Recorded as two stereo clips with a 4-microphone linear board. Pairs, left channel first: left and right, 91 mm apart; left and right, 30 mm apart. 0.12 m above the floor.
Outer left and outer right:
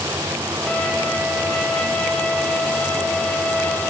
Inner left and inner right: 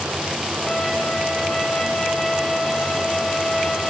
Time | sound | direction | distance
0.7 | a violin | 10° left (ahead or behind) | 8.5 m